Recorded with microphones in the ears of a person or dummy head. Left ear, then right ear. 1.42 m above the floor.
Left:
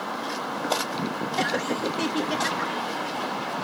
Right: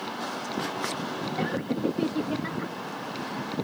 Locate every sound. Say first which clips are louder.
1.4 s laughter: left 5 dB; 70° left (ahead or behind)